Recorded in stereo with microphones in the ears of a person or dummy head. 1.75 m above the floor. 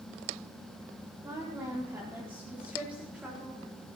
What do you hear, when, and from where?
1.2 s a woman speaking: 15° right (ahead or behind), 5 m; by 3.6 s centre (ahead or behind), 4.5 m